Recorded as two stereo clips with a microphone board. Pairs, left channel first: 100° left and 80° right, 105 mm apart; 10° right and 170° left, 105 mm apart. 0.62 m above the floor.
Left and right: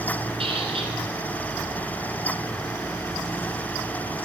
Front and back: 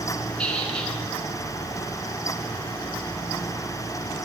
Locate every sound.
0.4 s a squeak: 90° right, 1.6 m